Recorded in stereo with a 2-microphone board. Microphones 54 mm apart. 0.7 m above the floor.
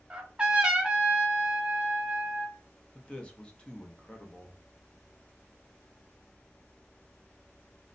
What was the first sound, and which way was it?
A trumpet, 15° right (ahead or behind).